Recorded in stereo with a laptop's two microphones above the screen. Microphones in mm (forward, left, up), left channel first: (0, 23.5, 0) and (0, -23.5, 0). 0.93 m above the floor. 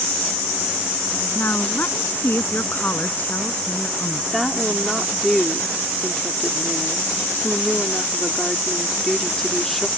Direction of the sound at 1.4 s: 45° left (ahead or behind).